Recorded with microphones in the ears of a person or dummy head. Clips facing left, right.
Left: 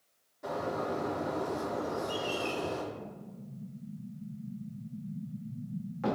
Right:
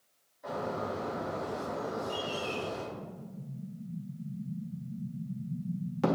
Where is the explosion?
45° right (ahead or behind), 0.6 m.